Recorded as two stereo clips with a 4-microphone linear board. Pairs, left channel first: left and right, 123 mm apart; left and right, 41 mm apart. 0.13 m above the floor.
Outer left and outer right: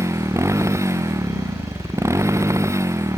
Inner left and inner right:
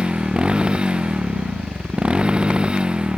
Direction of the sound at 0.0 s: 25° right (ahead or behind).